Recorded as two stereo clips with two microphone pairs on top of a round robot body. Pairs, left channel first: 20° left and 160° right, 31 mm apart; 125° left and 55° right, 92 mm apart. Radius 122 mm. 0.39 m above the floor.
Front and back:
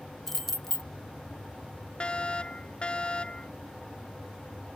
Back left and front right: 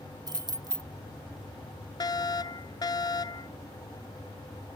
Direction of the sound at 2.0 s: 80° left.